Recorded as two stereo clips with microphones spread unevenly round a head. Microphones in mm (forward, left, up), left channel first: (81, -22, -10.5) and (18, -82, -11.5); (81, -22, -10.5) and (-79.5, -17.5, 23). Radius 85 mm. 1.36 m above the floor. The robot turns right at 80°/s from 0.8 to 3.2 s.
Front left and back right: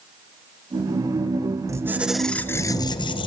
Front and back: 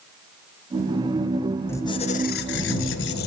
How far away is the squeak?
About 0.6 m.